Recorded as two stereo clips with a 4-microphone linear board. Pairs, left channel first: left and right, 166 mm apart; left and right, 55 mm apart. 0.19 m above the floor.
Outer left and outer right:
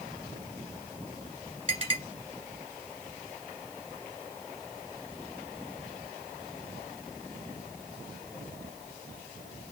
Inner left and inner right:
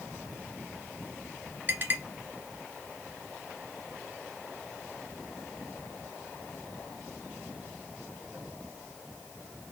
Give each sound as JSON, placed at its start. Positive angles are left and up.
{"t": 1.7, "sound": "a clink", "side_deg": -35, "distance_m": 2.0}